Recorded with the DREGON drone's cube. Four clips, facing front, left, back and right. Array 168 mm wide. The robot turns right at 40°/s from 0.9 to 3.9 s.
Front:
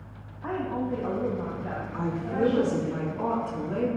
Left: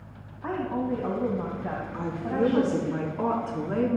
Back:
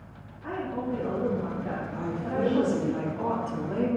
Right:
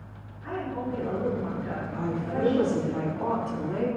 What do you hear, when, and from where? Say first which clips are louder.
0.4 s a woman speaking: left 3 dB, front 2 dB; 60° left, 3 m; by 2.9 s 140° left, 3 m
1.9 s a woman speaking: left 2 dB, front 3 dB; 30° left, 5.5 m; by 4.0 s 110° left, 5.5 m